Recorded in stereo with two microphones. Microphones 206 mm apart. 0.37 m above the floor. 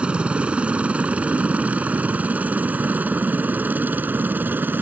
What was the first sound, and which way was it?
A helicopter, 5° right (ahead or behind).